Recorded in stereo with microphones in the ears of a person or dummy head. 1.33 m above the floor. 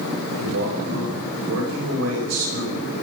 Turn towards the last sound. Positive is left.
turn(degrees=-85)